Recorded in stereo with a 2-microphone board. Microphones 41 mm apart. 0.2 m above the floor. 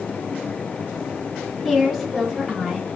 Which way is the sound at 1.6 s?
5° left (ahead or behind).